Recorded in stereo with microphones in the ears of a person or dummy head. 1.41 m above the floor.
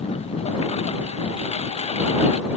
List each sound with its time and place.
0.0 s a lawn mower: 35° left (ahead or behind)